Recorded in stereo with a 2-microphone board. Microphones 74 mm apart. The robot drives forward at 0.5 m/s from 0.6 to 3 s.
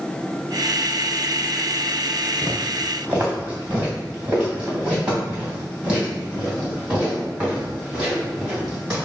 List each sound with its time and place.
2.4 s footsteps: 25° right (ahead or behind), 1.5 m; by 9.0 s 15° right (ahead or behind), 7 m